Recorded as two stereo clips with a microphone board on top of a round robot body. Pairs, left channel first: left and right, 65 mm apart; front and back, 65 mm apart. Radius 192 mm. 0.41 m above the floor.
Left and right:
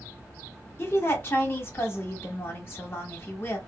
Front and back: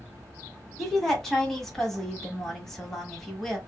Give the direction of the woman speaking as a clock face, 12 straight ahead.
9 o'clock.